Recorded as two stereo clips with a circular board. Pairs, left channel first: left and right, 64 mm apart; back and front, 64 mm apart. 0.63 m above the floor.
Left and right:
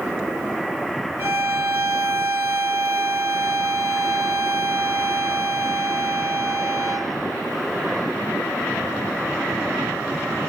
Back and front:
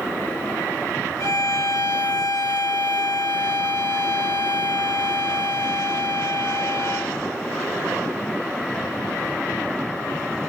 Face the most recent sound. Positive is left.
turn(degrees=-145)